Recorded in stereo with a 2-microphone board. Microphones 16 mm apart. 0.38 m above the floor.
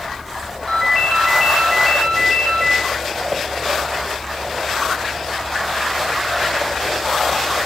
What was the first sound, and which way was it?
A ringtone, 30° left (ahead or behind).